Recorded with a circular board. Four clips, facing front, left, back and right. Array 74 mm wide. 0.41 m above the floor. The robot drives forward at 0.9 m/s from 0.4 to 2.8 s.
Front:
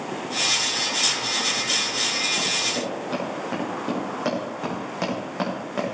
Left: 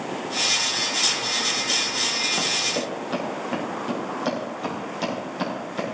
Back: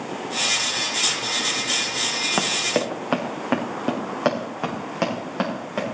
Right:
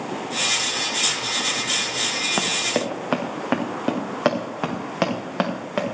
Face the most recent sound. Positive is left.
turn(degrees=-100)